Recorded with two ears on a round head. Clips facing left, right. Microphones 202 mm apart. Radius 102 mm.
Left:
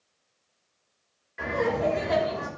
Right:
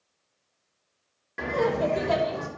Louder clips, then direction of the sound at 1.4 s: Right 1 dB; 65° right (ahead or behind).